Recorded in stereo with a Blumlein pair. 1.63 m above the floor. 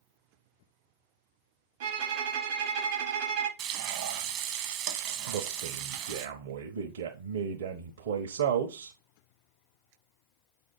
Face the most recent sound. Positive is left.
turn(degrees=-60)